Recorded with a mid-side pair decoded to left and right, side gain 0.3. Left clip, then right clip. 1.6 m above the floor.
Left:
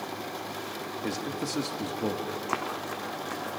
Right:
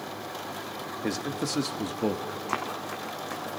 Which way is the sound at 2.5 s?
Straight ahead.